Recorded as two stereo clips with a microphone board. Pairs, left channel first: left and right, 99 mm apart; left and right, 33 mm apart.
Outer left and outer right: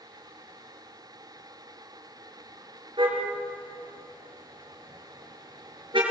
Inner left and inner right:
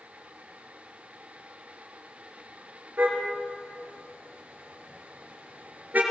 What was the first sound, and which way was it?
A car horn, 55° right (ahead or behind).